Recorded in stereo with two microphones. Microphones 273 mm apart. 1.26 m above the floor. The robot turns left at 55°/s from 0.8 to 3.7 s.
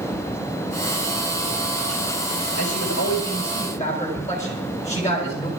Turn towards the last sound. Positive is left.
turn(degrees=25)